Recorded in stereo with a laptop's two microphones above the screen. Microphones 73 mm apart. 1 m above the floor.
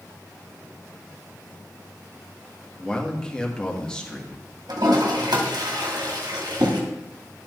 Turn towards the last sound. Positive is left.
turn(degrees=-70)  # may be behind; listen again after turning